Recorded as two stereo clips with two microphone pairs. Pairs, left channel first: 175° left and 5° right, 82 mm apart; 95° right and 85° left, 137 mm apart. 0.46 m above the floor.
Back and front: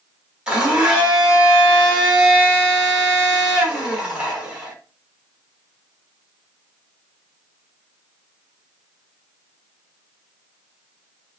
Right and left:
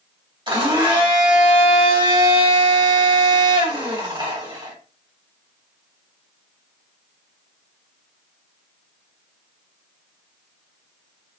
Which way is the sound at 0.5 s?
65° left.